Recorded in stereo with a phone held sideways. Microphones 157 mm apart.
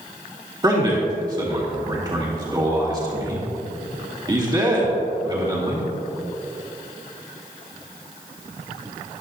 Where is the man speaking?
25° right (ahead or behind), 2.5 m.